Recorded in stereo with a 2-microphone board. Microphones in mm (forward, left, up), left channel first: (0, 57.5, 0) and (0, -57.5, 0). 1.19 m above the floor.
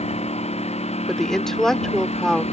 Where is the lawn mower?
65° left (ahead or behind).